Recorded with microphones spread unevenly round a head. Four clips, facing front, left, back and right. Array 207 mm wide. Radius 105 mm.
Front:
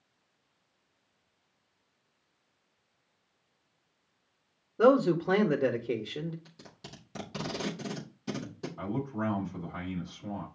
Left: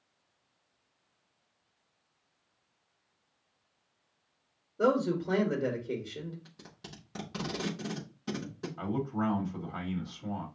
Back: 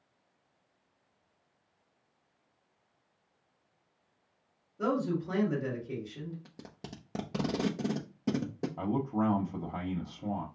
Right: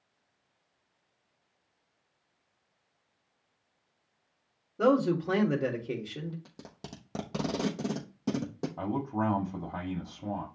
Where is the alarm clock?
No alarm clock in this recording.